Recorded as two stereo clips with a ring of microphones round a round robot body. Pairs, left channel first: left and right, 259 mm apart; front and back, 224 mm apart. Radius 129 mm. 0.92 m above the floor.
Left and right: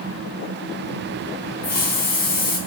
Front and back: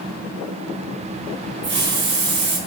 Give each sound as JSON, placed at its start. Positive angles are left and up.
{"t": 1.6, "sound": "a hiss", "azimuth_deg": 145, "distance_m": 4.0}